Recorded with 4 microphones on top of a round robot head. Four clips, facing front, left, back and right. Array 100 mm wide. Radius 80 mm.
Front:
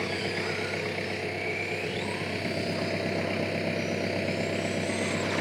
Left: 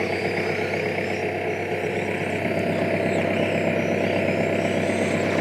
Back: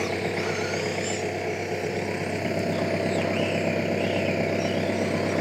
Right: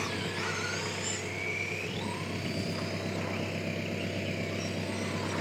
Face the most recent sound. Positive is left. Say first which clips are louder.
# left 11 dB, back 4 dB
turn(degrees=115)